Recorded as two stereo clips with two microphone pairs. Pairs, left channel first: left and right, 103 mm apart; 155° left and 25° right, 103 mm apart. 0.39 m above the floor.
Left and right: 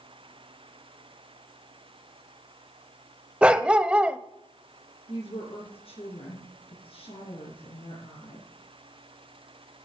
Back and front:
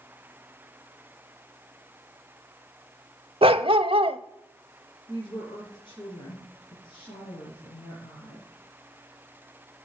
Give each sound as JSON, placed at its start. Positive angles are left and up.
{"t": 3.4, "sound": "a dog barking", "azimuth_deg": -5, "distance_m": 0.8}
{"t": 5.1, "sound": "a woman speaking", "azimuth_deg": 105, "distance_m": 5.5}